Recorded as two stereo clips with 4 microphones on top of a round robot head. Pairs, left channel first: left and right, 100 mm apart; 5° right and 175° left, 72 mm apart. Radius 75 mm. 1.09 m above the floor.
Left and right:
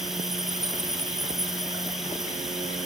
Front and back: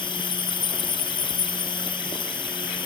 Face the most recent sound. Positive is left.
turn(degrees=0)